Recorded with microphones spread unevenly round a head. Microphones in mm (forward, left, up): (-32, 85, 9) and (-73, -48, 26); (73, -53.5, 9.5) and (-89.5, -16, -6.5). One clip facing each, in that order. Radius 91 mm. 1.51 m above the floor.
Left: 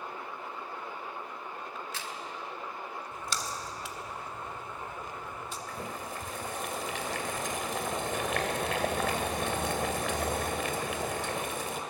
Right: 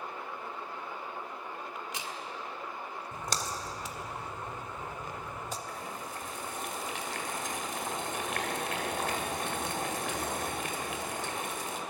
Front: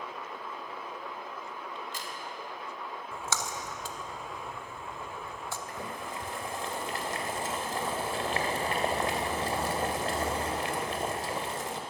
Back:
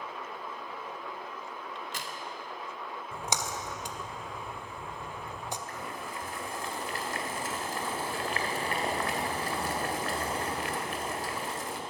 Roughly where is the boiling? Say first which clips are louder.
Left 2 dB, front 1 dB; ahead left.